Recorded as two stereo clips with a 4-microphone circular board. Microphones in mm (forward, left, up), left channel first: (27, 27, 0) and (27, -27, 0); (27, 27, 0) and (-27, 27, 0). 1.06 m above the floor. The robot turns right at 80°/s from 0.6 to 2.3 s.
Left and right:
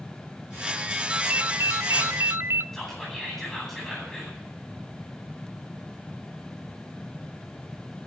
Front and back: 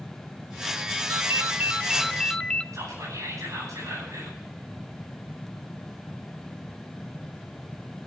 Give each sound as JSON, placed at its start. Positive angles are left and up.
{"t": 1.1, "sound": "a ringtone", "azimuth_deg": -165, "distance_m": 0.5}
{"t": 2.7, "sound": "whispering", "azimuth_deg": 175, "distance_m": 9.5}